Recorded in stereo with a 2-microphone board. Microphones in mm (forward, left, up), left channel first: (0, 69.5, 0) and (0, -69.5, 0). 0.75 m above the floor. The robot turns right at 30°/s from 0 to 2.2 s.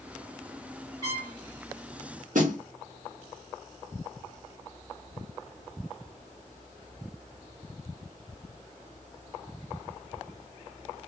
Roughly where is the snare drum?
Right.